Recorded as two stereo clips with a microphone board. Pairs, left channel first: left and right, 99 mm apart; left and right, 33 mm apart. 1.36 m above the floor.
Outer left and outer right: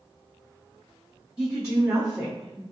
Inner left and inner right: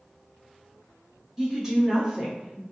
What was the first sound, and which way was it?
A woman speaking, 10° right (ahead or behind).